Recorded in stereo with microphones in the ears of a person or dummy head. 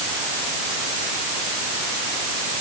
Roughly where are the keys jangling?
No keys jangling in this recording.